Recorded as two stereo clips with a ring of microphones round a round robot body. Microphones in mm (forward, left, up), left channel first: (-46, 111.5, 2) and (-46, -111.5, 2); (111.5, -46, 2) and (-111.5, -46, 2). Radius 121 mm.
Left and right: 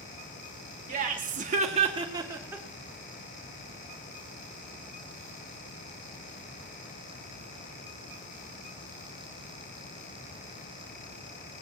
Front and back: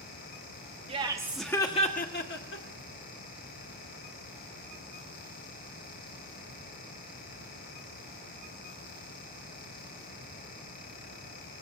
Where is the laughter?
130° right, 1.4 m; by 2.6 s 10° right, 1.9 m.